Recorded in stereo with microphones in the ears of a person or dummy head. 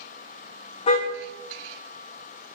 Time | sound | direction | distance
0.9 | a car horn | 40° left (ahead or behind) | 3.5 m